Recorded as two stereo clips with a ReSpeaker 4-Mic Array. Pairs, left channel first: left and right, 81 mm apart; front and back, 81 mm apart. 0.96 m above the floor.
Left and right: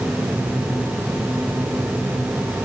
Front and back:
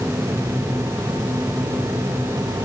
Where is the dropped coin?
No dropped coin in this recording.